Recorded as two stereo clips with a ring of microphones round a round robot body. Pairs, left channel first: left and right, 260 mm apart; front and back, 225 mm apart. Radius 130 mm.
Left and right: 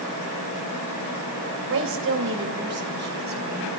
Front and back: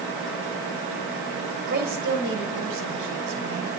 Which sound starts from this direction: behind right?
A woman speaking, at 1.7 s.